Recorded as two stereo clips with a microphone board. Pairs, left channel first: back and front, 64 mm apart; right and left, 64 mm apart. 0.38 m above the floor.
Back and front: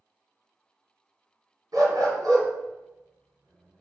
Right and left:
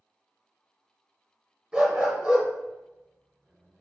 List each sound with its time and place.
1.7 s a dog barking: 20° left, 1.5 m